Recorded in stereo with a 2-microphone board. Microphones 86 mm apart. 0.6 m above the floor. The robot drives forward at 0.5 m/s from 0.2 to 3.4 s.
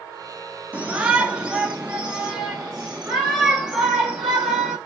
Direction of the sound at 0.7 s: 15° right (ahead or behind).